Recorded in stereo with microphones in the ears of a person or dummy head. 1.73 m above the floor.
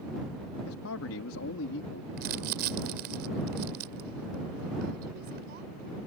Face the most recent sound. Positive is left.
turn(degrees=-55)  # may be behind; listen again after turning